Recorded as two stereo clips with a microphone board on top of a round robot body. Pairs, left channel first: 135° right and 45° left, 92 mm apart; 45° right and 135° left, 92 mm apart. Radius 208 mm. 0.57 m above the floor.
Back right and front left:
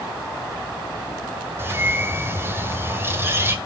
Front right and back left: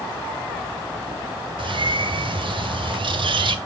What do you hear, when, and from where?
1.6 s a bird: 110° left, 1.9 m